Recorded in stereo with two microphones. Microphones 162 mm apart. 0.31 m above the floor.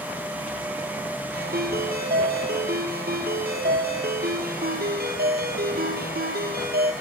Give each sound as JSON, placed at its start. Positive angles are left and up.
{"t": 1.3, "sound": "a ringtone", "side_deg": -75, "distance_m": 6.0}